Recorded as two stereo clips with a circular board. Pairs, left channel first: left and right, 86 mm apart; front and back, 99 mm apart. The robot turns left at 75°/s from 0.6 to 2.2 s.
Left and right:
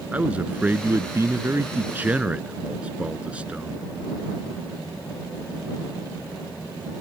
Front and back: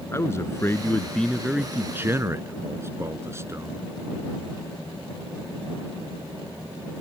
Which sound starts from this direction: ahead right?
A man speaking, at 0.1 s.